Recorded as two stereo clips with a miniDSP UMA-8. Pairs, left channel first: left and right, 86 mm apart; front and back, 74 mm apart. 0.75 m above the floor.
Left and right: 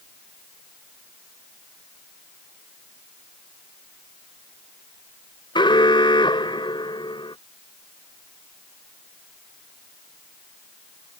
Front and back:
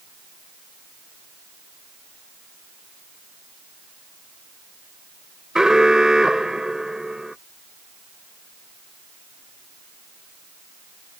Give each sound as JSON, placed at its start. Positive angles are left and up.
{"t": 5.5, "sound": "an alarm", "azimuth_deg": 100}